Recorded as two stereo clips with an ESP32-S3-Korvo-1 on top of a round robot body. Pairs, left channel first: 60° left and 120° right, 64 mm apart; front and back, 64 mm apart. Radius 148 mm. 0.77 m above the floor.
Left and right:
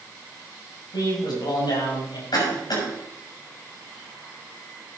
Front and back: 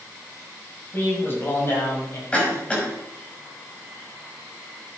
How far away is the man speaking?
About 5.5 m.